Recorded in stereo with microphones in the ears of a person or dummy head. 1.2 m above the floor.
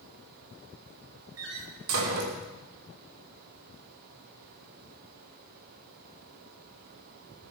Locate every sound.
1.4 s a door slam: 80° right, 2.5 m